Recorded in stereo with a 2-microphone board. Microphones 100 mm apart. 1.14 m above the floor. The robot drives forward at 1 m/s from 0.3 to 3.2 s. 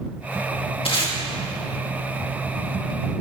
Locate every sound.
0.8 s tape being pulled: 65° left (ahead or behind), 2.5 m; by 1.1 s 60° left (ahead or behind), 2.5 m